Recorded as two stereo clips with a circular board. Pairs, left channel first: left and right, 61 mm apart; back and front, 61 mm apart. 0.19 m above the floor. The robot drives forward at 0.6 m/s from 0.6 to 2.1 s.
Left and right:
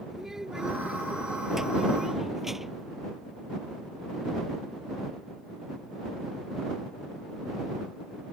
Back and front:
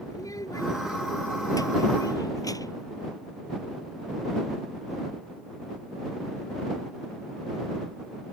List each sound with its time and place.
0.1 s a child speaking: 170° right; by 2.9 s 175° right